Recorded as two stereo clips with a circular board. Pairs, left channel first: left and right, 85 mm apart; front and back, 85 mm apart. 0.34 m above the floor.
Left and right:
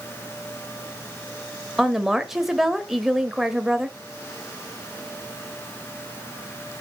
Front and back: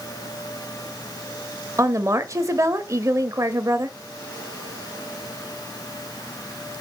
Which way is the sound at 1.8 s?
175° right.